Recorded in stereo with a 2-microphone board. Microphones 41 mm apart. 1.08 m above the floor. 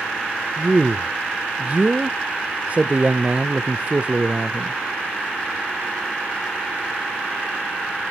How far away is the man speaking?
About 0.5 m.